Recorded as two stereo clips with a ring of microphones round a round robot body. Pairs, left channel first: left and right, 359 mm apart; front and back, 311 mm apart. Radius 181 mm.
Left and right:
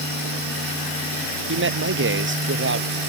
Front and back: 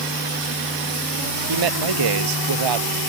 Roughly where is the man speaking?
Behind right.